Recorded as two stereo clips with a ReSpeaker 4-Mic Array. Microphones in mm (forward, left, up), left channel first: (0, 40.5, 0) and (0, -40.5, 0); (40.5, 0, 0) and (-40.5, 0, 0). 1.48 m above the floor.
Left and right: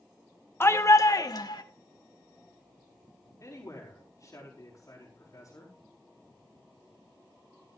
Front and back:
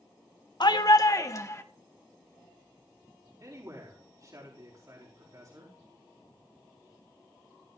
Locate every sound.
0.6 s a shout: 30° left, 1.0 m; by 1.6 s 55° left, 1.7 m
3.4 s a man speaking: 140° left, 4 m